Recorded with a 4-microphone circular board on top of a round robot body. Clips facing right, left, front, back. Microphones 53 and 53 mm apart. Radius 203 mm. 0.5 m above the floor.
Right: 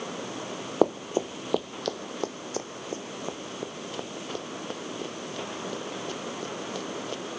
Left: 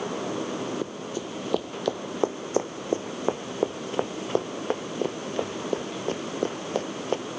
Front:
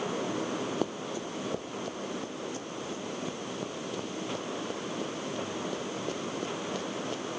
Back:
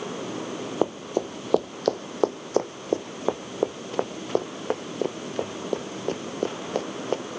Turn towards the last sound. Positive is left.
turn(degrees=140)